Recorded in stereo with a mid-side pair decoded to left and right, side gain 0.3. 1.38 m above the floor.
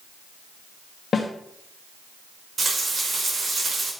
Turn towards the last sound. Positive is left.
turn(degrees=-55)